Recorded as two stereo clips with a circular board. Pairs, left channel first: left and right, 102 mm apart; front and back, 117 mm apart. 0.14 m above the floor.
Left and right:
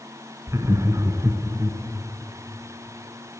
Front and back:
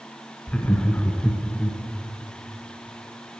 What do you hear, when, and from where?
0.5 s laughter: 70° right, 1.2 m